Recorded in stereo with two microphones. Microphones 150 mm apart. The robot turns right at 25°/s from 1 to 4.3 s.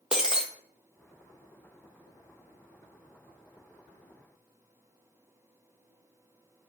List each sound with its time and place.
0.1 s breaking glass: 5° right (ahead or behind), 1.0 m